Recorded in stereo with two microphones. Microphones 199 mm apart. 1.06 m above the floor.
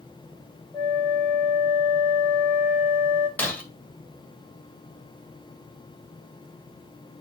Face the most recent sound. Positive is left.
turn(degrees=10)  # may be behind; listen again after turning